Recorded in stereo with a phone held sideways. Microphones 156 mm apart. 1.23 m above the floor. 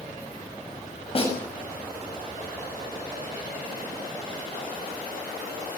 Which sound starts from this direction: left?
A snare drum, at 1.1 s.